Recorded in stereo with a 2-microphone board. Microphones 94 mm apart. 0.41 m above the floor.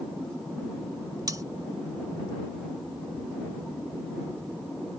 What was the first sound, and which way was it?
Cutlery clinking, 40° right (ahead or behind).